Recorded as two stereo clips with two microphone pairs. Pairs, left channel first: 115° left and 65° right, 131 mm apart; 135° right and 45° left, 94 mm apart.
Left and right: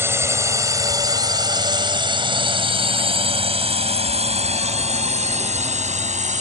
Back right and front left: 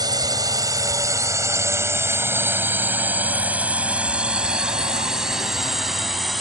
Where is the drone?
5° left; by 6.4 s 45° right.